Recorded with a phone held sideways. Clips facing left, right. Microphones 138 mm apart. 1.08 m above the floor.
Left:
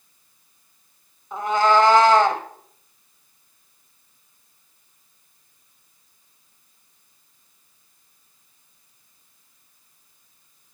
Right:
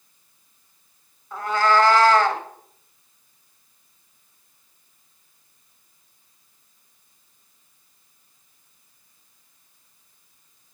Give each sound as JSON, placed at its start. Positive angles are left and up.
{"t": 1.3, "sound": "a cat meowing", "side_deg": 20, "distance_m": 0.9}